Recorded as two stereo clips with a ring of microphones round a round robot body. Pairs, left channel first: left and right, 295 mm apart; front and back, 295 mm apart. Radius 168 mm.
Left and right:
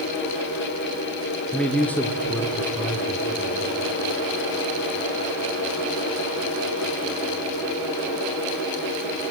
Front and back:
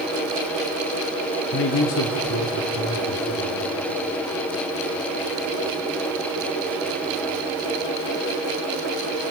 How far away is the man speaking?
About 0.8 m.